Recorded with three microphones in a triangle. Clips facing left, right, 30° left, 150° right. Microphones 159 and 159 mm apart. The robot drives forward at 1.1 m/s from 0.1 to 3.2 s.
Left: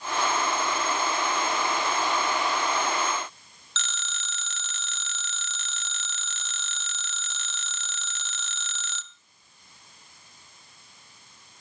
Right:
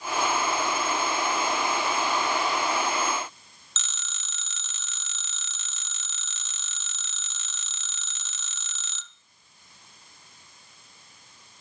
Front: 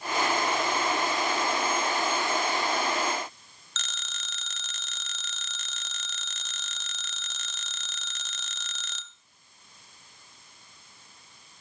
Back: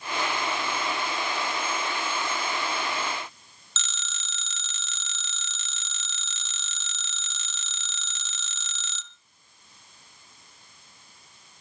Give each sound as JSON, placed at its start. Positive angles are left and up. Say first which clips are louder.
{"t": 3.8, "sound": "a phone ringing", "louder": "left 7 dB, back 1 dB", "azimuth_deg": 65, "distance_m": 1.6}